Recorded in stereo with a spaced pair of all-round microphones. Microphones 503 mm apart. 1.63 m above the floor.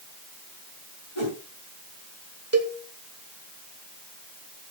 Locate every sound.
1.1 s a whoosh: 70° left (ahead or behind), 5.5 m
2.5 s a cowbell: 30° right (ahead or behind), 1.4 m